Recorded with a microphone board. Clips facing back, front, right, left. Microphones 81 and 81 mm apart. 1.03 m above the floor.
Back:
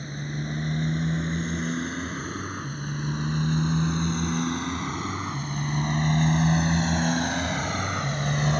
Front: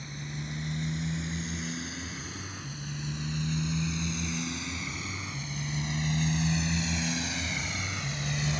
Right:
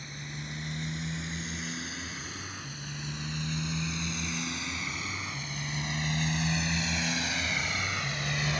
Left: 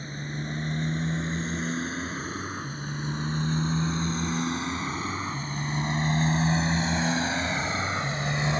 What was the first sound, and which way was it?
A motorcycle, 140° left.